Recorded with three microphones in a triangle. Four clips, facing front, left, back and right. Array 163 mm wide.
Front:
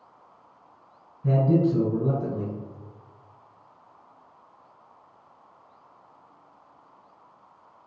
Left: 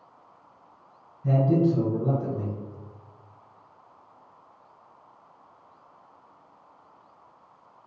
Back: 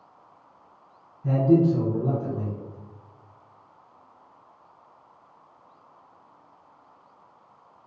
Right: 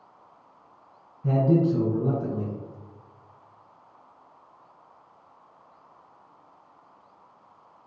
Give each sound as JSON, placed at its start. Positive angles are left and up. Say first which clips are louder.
{"t": 1.2, "sound": "a man speaking", "louder": "even, back 2 dB", "azimuth_deg": -60, "distance_m": 1.6}